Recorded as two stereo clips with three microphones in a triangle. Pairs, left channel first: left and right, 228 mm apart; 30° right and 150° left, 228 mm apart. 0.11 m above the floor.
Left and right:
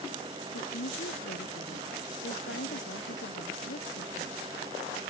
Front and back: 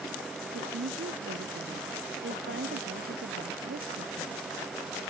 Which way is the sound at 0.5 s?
120° left.